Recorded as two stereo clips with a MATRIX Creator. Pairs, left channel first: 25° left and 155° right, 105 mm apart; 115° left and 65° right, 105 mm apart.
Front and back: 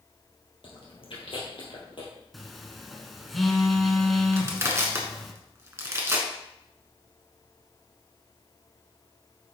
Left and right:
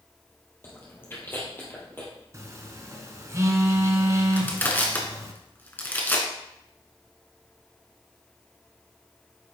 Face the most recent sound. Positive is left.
turn(degrees=165)